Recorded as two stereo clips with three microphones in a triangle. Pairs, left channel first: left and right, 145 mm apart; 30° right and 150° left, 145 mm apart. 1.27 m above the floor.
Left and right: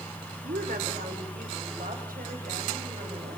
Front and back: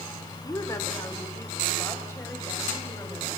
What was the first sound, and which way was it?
A woman speaking, 95° right.